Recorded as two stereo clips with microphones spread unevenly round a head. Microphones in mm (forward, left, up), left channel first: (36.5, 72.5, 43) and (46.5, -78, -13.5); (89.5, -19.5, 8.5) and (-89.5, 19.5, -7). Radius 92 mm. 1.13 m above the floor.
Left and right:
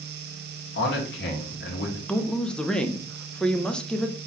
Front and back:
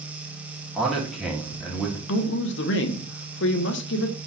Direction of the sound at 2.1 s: 5° right.